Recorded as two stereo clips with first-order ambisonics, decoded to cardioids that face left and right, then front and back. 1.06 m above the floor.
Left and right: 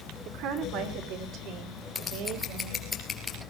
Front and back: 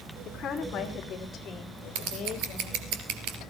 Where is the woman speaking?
60° right, 3 m; by 2.9 s 55° right, 6 m.